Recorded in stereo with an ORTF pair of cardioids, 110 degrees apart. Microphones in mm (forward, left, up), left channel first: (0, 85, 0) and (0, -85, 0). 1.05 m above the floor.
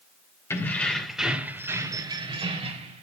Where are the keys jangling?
15° left, 3 m; by 3.0 s 40° right, 3.5 m.